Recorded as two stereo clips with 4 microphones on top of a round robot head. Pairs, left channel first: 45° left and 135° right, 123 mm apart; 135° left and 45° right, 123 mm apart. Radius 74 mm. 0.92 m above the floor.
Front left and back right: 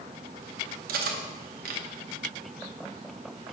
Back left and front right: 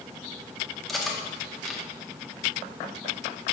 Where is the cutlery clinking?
135° right, 0.9 m.